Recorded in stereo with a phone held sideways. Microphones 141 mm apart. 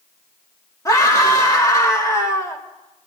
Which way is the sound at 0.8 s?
25° left (ahead or behind).